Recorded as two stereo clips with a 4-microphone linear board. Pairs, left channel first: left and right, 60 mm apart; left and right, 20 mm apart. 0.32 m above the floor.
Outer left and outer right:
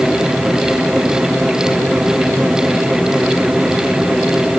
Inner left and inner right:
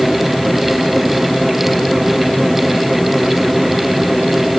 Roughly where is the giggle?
I don't hear a giggle.